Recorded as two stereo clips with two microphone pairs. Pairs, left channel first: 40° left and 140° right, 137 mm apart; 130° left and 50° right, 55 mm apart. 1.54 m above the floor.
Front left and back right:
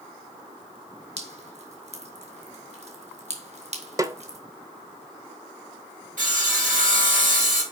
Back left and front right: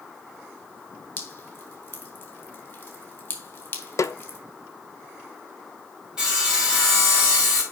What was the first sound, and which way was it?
Dripping, straight behind.